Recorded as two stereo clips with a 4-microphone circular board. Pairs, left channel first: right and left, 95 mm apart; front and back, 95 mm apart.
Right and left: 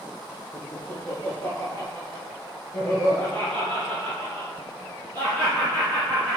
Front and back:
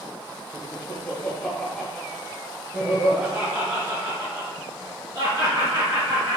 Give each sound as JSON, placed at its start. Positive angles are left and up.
{"t": 0.5, "sound": "laughter", "azimuth_deg": -30, "distance_m": 1.4}